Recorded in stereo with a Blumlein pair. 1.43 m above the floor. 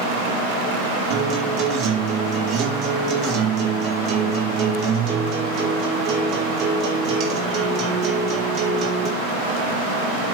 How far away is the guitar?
About 4.5 m.